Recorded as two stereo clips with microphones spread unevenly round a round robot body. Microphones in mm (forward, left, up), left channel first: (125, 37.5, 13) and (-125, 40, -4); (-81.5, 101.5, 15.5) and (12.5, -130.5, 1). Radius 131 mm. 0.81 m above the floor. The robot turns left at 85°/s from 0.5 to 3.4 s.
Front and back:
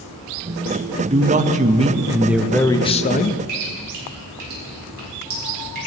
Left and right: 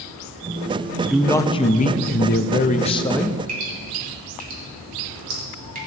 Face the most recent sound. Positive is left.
turn(degrees=-125)